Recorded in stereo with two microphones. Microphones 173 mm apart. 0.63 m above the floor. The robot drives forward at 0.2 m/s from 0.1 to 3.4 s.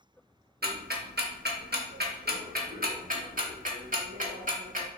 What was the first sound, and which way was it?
Ticking, 65° right (ahead or behind).